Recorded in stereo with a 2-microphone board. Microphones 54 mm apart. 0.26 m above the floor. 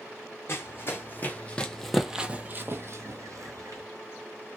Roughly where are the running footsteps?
Left.